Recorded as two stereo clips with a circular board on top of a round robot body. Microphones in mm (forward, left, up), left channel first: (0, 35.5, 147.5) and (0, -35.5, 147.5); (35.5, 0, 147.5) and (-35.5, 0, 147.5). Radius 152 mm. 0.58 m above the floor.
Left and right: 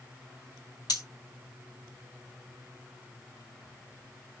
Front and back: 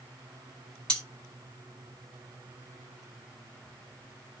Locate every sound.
0.9 s cutlery clinking: 80° left, 1.8 m